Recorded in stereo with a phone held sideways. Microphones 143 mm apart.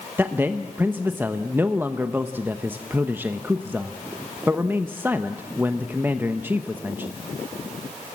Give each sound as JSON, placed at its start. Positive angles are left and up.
{"t": 0.2, "sound": "a man speaking", "side_deg": -15, "distance_m": 0.8}